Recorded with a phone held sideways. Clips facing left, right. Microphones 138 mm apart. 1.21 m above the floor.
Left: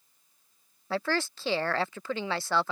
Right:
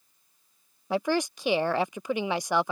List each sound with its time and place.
0.9 s a woman speaking: 15° right (ahead or behind)